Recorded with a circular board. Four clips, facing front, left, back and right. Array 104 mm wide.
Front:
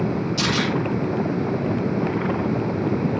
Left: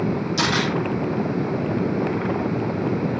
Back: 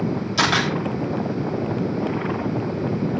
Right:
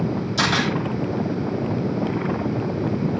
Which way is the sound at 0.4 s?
175° left.